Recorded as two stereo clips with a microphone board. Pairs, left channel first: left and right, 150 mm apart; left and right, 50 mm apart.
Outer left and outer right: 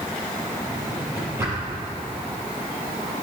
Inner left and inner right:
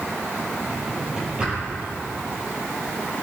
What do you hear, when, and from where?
0.7 s a drawer: 15° right (ahead or behind), 6 m